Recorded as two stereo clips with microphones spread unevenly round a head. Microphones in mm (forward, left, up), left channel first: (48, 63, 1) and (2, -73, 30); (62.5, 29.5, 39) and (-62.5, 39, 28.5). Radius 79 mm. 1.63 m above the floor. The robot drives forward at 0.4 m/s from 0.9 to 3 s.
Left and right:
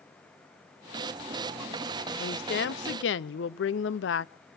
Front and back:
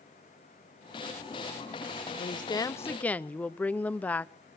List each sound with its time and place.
2.2 s a woman speaking: 45° left, 0.7 m; by 4.3 s 75° left, 0.5 m